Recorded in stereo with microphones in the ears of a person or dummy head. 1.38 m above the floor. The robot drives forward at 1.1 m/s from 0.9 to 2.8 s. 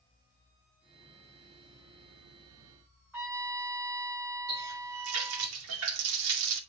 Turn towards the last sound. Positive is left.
turn(degrees=-80)